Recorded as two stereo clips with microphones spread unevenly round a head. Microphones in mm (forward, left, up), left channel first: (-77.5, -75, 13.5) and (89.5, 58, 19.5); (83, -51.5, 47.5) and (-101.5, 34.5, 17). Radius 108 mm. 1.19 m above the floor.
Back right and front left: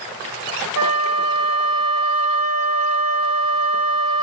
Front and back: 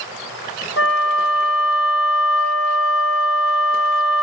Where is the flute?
15° left, 1.6 m.